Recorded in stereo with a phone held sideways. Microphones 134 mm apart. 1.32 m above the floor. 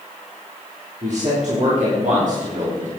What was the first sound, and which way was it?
A man speaking, 60° right (ahead or behind).